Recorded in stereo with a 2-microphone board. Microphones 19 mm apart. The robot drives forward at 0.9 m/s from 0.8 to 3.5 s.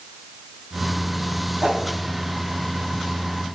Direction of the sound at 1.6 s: 60° right (ahead or behind).